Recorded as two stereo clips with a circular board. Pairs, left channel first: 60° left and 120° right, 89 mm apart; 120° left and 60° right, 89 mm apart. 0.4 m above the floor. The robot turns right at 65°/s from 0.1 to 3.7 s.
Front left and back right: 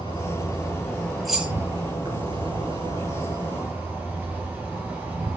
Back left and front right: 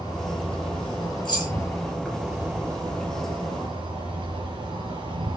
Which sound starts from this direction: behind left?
Keys jangling, at 1.2 s.